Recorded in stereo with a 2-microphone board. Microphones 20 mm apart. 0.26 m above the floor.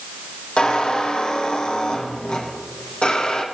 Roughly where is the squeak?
Left.